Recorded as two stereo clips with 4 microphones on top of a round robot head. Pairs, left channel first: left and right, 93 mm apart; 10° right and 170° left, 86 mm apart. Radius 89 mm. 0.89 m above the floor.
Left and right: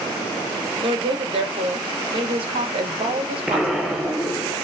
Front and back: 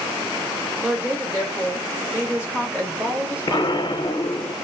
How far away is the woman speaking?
About 1.1 m.